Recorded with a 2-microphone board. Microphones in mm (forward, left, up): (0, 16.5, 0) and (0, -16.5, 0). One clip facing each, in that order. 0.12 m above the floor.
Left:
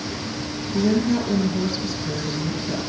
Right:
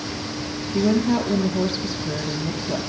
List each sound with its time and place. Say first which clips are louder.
0.7 s a woman speaking: right 1 dB; centre (ahead or behind), 2 m